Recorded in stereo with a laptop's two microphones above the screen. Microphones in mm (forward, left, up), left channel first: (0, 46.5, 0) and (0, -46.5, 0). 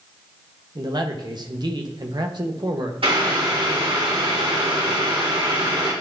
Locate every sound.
0.8 s a man speaking: 50° right (ahead or behind), 1.2 m
3.0 s boiling: 80° right, 4 m